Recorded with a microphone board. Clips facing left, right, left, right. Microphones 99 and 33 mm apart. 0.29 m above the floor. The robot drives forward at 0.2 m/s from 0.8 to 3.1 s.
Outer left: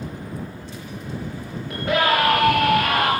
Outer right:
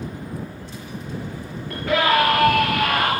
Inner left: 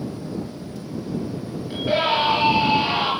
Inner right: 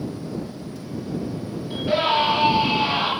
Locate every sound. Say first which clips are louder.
1.7 s a scream: outer right 1 dB, even; 20° left (ahead or behind), 5 m